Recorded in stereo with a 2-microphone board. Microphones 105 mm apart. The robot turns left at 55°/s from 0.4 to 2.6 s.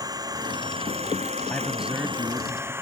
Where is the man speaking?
10° left; by 2.7 s 50° right.